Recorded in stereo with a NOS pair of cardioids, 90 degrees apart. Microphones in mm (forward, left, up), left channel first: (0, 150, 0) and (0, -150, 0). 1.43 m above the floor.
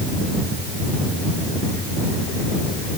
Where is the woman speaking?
I don't hear a woman speaking.